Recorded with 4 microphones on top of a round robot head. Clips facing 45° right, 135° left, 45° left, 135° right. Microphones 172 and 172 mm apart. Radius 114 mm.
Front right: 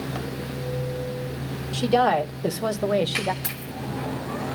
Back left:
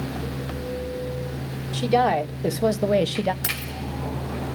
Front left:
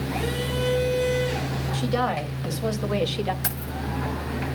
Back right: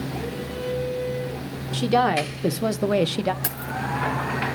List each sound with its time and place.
1.7 s a woman speaking: 145° right, 2 m; by 3.3 s 170° right, 1.0 m
3.4 s keys jangling: 170° left, 7 m